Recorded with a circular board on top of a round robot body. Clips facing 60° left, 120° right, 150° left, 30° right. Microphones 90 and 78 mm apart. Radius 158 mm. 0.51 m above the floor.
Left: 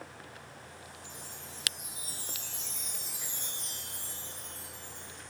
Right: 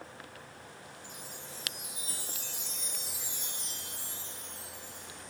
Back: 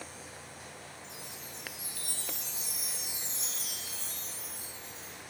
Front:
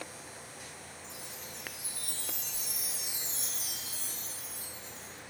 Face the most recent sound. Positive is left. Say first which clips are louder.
# right 1 dB, even
turn(degrees=-45)